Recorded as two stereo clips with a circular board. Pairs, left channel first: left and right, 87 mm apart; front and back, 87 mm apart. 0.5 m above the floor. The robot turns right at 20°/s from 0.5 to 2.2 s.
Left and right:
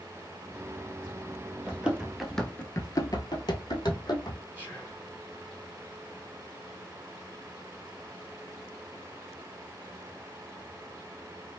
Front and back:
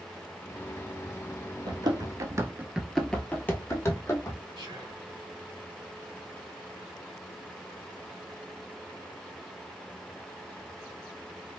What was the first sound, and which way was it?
Running footsteps, 165° right.